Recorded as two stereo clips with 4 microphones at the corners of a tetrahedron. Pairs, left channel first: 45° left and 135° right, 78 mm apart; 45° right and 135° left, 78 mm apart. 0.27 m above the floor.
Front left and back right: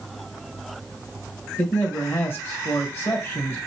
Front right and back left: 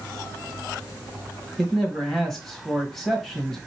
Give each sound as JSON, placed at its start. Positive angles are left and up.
{"t": 1.6, "sound": "a man speaking", "azimuth_deg": 40, "distance_m": 1.4}